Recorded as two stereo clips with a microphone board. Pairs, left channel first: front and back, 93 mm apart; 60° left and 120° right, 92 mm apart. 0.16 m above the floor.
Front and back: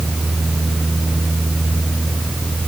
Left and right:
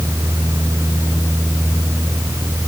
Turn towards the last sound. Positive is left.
No sound to turn to.